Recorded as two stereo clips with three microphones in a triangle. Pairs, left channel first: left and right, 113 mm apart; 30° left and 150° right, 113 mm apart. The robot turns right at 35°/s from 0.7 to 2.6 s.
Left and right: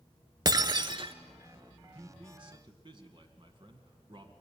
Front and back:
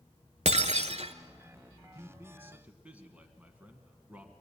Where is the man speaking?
100° right, 1.8 m; by 4.3 s 75° right, 1.8 m.